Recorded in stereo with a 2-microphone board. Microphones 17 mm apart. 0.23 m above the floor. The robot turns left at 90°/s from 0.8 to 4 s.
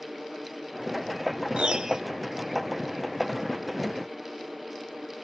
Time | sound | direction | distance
1.6 | a piano | 105° right | 0.9 m